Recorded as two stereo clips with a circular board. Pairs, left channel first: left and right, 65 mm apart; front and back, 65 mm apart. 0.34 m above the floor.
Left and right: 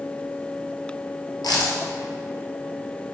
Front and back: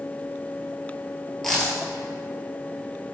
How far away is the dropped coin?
About 1.1 m.